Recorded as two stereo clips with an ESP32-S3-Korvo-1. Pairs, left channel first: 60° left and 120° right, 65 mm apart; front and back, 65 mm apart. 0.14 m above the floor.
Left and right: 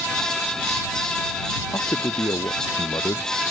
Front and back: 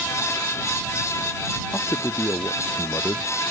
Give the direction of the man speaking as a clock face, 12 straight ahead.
11 o'clock.